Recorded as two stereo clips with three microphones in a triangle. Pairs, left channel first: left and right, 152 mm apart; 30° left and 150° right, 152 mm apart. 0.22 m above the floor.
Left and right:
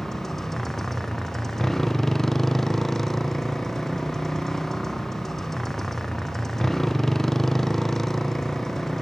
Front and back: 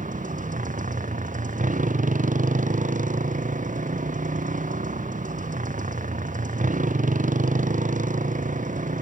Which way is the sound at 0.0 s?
175° left.